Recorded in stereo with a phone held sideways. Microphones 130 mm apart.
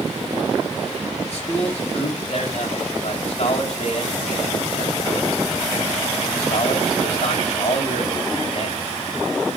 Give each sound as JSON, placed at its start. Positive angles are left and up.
{"t": 1.3, "sound": "a man speaking", "side_deg": 60, "distance_m": 3.0}